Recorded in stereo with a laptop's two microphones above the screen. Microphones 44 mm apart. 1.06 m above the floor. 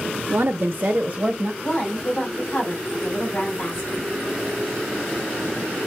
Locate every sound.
0.3 s a woman speaking: 45° right (ahead or behind), 0.7 m; by 1.5 s 15° right (ahead or behind), 0.9 m
1.6 s a woman speaking: 25° left (ahead or behind), 2.5 m